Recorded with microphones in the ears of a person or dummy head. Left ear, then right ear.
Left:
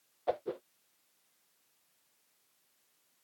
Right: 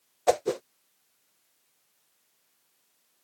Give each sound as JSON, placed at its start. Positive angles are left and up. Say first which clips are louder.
{"t": 0.3, "sound": "a whoosh", "louder": "right 10 dB", "side_deg": -80}